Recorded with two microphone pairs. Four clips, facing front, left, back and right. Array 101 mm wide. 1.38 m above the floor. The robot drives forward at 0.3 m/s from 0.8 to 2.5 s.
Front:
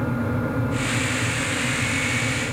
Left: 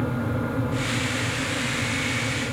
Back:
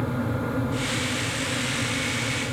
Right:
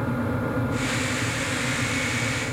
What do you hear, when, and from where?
Only background noise.